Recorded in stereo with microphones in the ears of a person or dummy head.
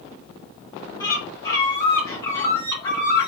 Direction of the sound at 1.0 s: 20° left (ahead or behind).